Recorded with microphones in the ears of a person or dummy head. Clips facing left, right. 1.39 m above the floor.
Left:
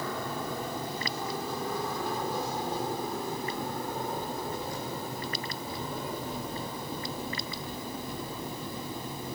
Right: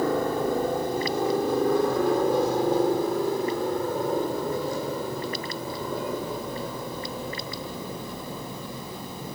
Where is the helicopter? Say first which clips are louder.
Right 11 dB; 45° right (ahead or behind); by 9.4 s 70° right (ahead or behind).